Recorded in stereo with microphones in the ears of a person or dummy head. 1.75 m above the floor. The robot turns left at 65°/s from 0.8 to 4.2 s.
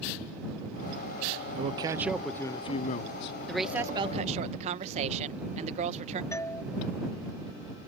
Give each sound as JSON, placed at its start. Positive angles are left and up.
{"t": 1.6, "sound": "a man speaking", "azimuth_deg": -145}
{"t": 3.5, "sound": "a woman speaking", "azimuth_deg": 5}
{"t": 6.3, "sound": "a doorbell", "side_deg": 10}